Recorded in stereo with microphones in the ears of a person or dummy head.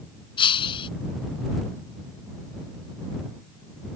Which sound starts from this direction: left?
Breaking glass, at 0.4 s.